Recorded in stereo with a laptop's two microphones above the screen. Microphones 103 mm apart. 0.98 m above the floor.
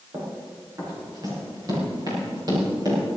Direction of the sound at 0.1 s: 30° right (ahead or behind).